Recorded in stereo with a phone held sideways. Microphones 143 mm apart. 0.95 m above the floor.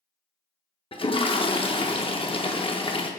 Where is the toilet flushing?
40° left (ahead or behind), 0.6 m.